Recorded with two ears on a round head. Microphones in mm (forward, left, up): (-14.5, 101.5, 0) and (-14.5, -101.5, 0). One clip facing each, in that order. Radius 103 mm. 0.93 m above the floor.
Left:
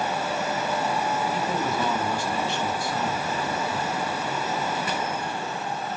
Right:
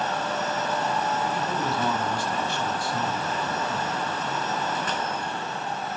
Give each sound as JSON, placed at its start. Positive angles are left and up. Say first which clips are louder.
{"t": 1.3, "sound": "a man speaking", "louder": "left 1 dB", "side_deg": 65, "distance_m": 6.5}